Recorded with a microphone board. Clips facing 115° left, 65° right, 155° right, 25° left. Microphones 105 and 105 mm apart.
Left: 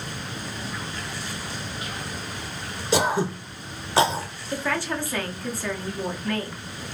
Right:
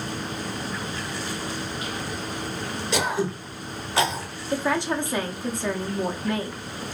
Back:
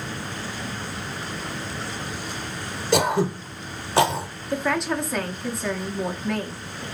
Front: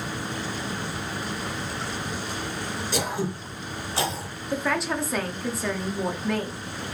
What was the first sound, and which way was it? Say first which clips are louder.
Throat clearing: left 3 dB, back 9 dB; 175° left.